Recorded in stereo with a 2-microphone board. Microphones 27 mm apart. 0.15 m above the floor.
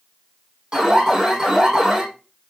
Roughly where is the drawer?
I don't hear a drawer.